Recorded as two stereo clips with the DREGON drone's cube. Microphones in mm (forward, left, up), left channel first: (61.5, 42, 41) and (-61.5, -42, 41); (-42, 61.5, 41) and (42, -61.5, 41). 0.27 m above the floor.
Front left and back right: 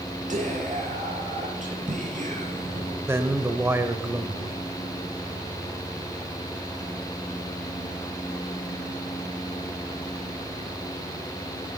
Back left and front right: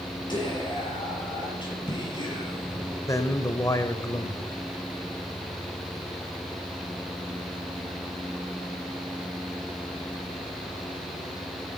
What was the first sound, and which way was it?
Whispering, 175° right.